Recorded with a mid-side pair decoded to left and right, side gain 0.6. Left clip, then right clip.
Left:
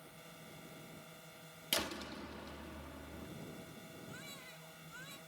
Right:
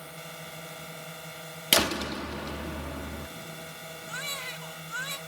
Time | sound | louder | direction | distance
0.0 | a drone | right 14 dB | 60° right | ?
1.7 | a door slam | right 14 dB | 60° right | ?
4.1 | a baby crying | right 19 dB | 70° right | ?